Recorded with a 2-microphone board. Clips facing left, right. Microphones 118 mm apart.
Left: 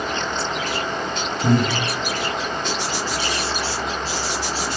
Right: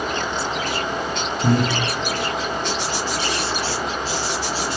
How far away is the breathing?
About 6.5 m.